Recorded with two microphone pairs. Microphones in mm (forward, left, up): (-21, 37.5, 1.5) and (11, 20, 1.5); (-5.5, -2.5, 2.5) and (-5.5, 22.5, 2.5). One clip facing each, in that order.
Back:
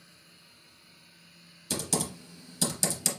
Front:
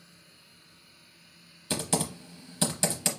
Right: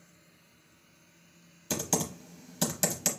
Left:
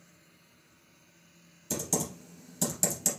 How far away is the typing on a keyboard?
About 0.7 m.